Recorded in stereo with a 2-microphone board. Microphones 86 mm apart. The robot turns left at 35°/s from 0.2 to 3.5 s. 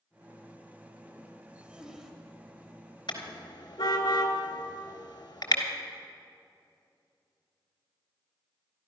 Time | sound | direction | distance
1.5 | a zipper | 15° right (ahead or behind) | 1.5 m
3.1 | a car horn | 65° left (ahead or behind) | 2 m